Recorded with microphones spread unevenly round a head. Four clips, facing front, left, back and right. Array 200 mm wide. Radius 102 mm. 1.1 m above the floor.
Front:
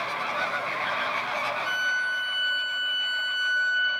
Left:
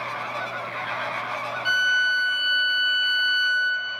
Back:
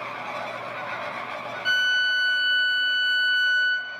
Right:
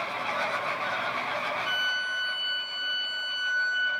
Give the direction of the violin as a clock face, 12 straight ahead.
8 o'clock.